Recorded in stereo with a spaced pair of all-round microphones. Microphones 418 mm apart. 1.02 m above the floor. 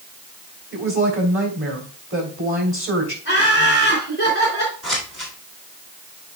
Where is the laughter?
30° left (ahead or behind), 3 m.